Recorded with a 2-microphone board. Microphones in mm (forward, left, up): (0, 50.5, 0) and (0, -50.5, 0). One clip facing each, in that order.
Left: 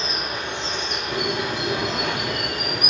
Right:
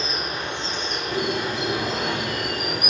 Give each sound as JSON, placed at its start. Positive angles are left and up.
{"t": 0.0, "sound": "running water", "side_deg": -40, "distance_m": 2.0}
{"t": 1.1, "sound": "a bird", "side_deg": -10, "distance_m": 1.6}